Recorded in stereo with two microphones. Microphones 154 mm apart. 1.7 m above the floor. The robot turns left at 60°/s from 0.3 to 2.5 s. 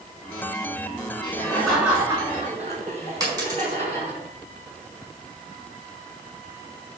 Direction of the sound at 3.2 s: 25° right (ahead or behind).